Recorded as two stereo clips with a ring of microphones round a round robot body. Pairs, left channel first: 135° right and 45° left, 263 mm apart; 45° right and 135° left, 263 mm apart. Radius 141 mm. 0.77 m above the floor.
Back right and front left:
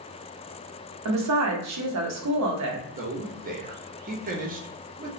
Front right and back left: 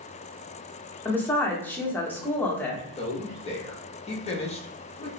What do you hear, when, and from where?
1.1 s a woman speaking: 35° left, 0.8 m
3.0 s a man speaking: 10° left, 0.7 m